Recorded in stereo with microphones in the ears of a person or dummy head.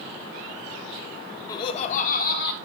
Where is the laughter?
25° left (ahead or behind), 1.2 m; by 2.6 s 70° left (ahead or behind), 2 m.